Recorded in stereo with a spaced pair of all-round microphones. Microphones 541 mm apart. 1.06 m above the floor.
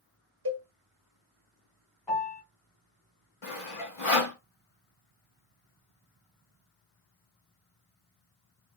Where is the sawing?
60° left (ahead or behind), 1.6 m.